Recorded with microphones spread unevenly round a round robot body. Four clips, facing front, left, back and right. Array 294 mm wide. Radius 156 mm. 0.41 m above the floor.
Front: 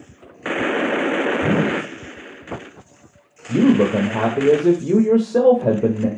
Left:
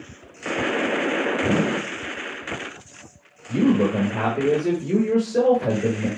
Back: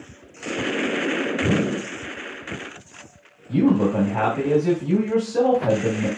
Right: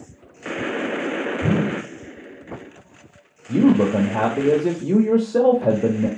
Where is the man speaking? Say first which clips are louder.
Right 3 dB, front 3 dB; 30° right, 1.5 m.